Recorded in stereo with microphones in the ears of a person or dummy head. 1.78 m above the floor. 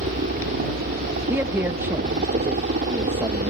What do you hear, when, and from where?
0.0 s a helicopter: 40° right (ahead or behind)
1.3 s a man speaking: 10° right (ahead or behind)